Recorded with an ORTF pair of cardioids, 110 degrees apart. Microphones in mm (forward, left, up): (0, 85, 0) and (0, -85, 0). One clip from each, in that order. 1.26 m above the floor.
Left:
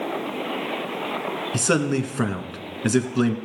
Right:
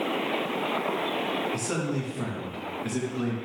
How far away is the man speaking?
About 1.6 m.